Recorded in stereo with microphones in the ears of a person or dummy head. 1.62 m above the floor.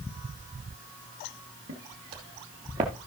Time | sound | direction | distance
1.7 | footsteps | 55° right (ahead or behind) | 3 m